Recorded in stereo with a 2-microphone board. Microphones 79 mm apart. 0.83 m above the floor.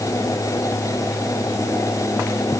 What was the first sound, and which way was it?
Only background noise.